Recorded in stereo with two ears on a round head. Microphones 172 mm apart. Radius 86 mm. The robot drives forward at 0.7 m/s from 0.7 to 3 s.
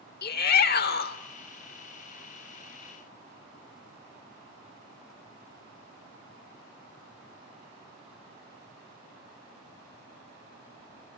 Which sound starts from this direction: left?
A shout, at 0.2 s.